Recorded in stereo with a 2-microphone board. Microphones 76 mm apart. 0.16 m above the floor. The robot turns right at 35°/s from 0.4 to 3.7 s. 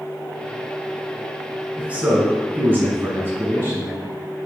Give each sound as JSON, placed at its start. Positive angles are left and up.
{"t": 1.8, "sound": "a man speaking", "azimuth_deg": -145, "distance_m": 1.5}